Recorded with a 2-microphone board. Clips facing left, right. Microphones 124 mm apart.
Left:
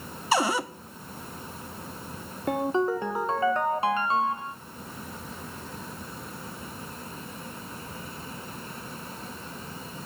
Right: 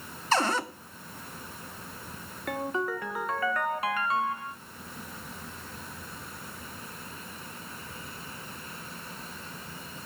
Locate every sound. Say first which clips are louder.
0.3 s a cupboard door: left 2 dB; 10° left (ahead or behind), 0.8 m
2.5 s a ringtone: left 6 dB; 25° left (ahead or behind), 0.7 m